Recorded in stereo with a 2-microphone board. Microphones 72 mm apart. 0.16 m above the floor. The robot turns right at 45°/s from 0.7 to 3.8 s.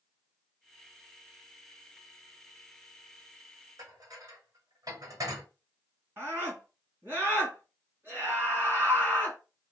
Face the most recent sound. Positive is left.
turn(degrees=-30)  # may be behind; listen again after turning